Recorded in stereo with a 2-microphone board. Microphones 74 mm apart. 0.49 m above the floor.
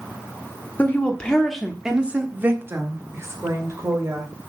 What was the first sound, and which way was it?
A woman speaking, 25° left (ahead or behind).